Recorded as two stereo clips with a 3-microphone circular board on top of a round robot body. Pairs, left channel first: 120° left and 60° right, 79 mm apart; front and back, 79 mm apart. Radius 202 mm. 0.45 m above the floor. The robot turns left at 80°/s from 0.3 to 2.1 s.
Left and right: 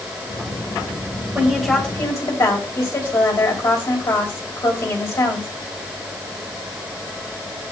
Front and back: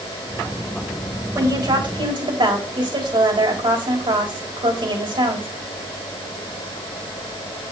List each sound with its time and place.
1.4 s a woman speaking: 125° right, 3.5 m; by 5.5 s 175° left, 3.5 m